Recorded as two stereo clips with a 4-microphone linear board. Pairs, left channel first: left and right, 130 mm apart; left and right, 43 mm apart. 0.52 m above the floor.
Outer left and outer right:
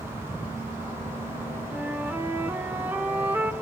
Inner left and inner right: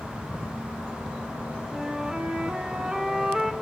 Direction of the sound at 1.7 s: 15° right (ahead or behind).